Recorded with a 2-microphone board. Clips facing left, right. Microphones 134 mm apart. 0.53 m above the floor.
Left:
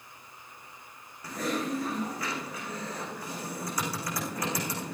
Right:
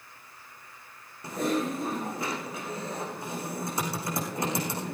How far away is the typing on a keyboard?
About 7 m.